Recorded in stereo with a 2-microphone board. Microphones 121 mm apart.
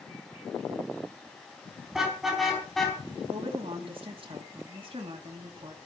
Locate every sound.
1.9 s a car horn: 5° right (ahead or behind), 4.5 m; by 3.0 s 5° left (ahead or behind), 4 m
3.3 s a woman speaking: 45° right (ahead or behind), 3.5 m